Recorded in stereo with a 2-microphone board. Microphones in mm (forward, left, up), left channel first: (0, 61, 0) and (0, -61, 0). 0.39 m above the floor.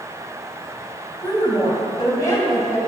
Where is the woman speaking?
30° left (ahead or behind), 3 m.